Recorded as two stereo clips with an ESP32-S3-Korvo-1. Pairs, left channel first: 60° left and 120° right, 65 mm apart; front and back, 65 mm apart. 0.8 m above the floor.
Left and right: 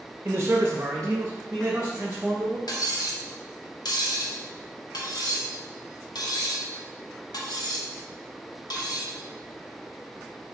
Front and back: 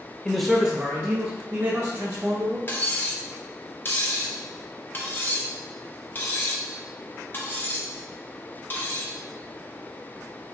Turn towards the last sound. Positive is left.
turn(degrees=60)